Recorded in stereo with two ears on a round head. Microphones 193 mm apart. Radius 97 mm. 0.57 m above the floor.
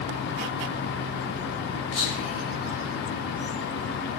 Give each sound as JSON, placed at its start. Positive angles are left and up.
{"t": 1.9, "sound": "whispering", "side_deg": 30, "distance_m": 0.9}